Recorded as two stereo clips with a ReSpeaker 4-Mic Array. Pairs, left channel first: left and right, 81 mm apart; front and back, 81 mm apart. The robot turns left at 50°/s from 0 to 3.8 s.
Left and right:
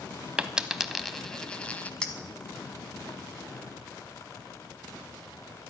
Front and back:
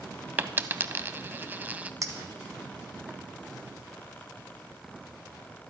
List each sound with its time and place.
0.4 s a dropped coin: 150° right, 0.6 m; by 1.9 s 135° left, 0.6 m
2.0 s a clink: 165° left, 1.1 m; by 3.2 s 105° left, 1.1 m